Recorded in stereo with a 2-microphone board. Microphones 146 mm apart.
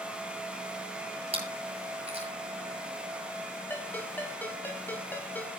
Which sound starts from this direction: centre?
A ringtone, at 3.7 s.